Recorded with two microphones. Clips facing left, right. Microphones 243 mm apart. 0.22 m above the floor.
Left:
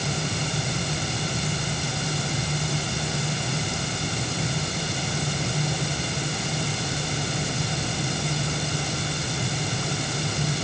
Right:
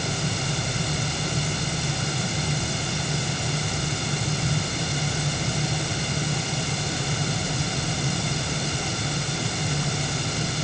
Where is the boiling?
I don't hear boiling.